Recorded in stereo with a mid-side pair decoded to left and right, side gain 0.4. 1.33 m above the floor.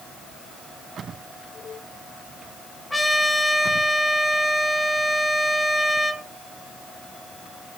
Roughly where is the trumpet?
Ahead.